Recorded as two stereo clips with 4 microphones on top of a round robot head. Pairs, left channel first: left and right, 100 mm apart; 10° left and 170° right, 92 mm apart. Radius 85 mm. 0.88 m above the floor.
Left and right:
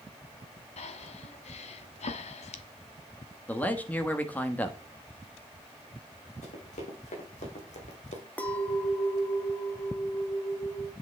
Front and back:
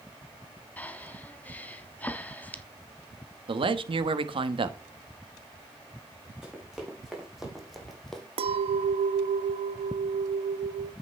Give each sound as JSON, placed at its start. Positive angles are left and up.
{"t": 0.8, "sound": "breathing", "azimuth_deg": 80, "distance_m": 1.1}
{"t": 3.5, "sound": "a man speaking", "azimuth_deg": 165, "distance_m": 1.1}
{"t": 6.4, "sound": "running footsteps", "azimuth_deg": 105, "distance_m": 4.5}
{"t": 8.4, "sound": "a clink", "azimuth_deg": 170, "distance_m": 0.7}